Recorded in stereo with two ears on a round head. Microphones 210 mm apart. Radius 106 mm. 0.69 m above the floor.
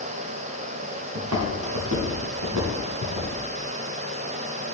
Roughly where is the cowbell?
I don't hear a cowbell.